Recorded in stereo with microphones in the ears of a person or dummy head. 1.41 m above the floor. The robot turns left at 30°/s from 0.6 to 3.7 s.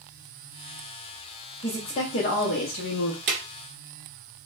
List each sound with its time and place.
1.6 s a woman speaking: 155° left, 0.6 m; by 3.2 s 110° left, 0.6 m
3.3 s a drawer: 45° right (ahead or behind), 1.2 m